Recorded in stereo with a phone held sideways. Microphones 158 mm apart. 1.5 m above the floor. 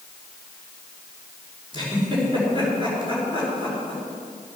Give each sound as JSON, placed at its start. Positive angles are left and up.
{"t": 1.7, "sound": "a giggle", "side_deg": -35, "distance_m": 4.5}